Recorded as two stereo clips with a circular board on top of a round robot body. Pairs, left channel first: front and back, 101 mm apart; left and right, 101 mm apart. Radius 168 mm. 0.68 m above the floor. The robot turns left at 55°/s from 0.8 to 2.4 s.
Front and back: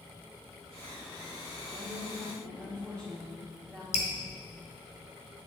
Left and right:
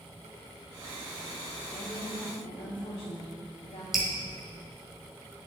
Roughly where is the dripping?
Ahead.